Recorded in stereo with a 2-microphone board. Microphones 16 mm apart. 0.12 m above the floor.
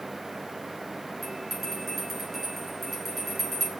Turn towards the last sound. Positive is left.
turn(degrees=10)  # may be behind; listen again after turning